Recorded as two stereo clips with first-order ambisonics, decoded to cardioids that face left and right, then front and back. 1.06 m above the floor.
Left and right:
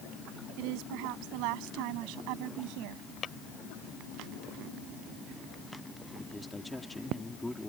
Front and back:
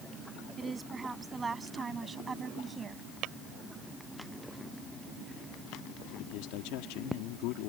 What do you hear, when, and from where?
0.6 s a woman speaking: 105° right
3.2 s tapping: 155° left
6.2 s a man speaking: straight ahead